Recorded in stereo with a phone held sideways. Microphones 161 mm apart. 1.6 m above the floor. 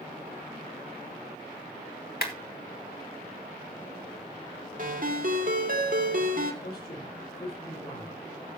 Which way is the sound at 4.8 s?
60° right (ahead or behind).